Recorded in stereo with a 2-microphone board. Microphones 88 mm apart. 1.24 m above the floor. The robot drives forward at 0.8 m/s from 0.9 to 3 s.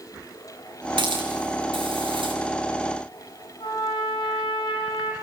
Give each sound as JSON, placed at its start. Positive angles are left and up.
{"t": 1.0, "sound": "a hiss", "side_deg": -70, "distance_m": 7.0}
{"t": 3.6, "sound": "a trumpet", "side_deg": 75, "distance_m": 4.0}